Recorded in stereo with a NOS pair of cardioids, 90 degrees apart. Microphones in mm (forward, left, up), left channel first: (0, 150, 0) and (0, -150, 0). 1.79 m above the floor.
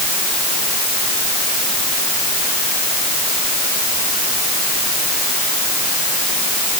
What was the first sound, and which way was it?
Only background noise.